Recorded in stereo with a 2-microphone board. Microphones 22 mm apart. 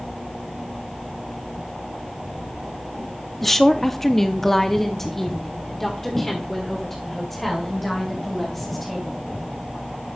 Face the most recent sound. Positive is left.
turn(degrees=5)  # may be behind; listen again after turning